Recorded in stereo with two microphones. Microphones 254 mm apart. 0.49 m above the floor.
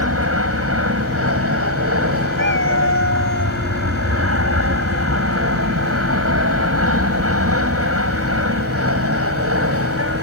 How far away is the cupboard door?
No cupboard door in this recording.